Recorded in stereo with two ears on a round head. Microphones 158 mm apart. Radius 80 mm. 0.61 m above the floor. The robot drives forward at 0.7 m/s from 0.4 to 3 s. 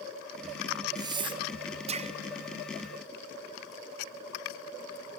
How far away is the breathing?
About 0.9 m.